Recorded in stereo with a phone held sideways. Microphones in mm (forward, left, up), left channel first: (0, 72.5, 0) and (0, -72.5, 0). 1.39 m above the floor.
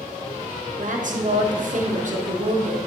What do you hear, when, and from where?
0.8 s a woman speaking: 65° right (ahead or behind), 0.9 m